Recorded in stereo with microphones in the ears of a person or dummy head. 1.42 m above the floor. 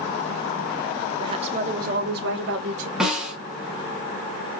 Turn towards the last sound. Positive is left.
turn(degrees=-10)  # may be behind; listen again after turning